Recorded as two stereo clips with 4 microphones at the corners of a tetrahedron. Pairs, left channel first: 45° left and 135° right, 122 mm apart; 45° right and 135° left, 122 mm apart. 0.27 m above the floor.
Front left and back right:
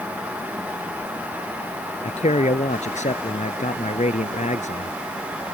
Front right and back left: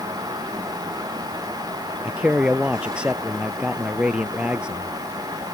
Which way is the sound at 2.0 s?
55° left.